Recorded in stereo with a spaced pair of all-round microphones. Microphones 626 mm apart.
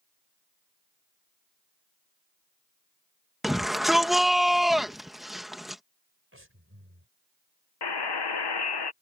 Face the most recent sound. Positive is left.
turn(degrees=40)  # may be behind; listen again after turning